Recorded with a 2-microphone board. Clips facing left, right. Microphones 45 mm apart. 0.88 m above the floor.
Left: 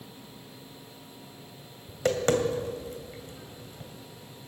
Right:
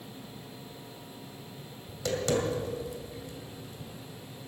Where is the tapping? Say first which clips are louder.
Left 4 dB; 40° left (ahead or behind), 2 m.